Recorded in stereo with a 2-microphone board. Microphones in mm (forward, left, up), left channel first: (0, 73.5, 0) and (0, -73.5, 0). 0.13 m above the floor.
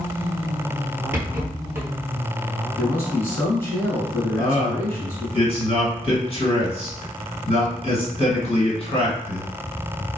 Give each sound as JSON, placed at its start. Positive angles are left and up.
{"t": 1.1, "sound": "a rattle", "side_deg": -15, "distance_m": 1.3}
{"t": 2.8, "sound": "a man speaking", "side_deg": 15, "distance_m": 1.4}
{"t": 4.4, "sound": "a man speaking", "side_deg": 35, "distance_m": 1.8}